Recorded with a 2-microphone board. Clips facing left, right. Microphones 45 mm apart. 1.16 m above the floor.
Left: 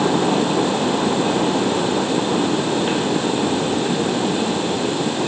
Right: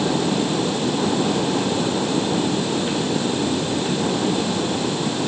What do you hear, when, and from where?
Only background noise.